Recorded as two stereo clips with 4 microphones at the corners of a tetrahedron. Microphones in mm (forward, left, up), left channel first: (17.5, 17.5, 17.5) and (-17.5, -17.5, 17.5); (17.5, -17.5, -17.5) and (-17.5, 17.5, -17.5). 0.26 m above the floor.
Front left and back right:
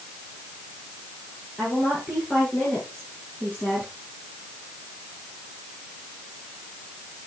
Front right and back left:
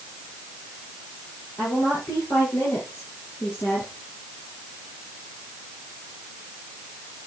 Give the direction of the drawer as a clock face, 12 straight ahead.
I don't hear a drawer.